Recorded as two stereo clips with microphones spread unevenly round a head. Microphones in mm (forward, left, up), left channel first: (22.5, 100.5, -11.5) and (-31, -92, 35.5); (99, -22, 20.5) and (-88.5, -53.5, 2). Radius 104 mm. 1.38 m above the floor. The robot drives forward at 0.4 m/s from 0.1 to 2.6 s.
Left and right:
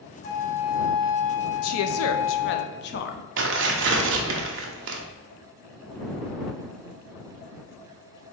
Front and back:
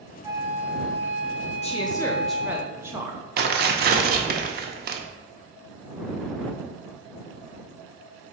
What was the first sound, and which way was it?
A flute, 110° left.